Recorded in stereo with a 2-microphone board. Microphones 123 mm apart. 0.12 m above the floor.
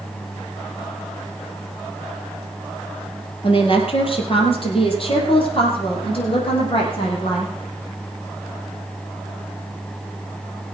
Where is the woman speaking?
50° left (ahead or behind), 2.5 m; by 7.5 s 45° left (ahead or behind), 6 m.